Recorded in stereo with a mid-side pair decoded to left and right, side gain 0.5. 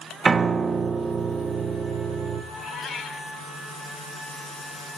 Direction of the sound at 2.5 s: 45° left.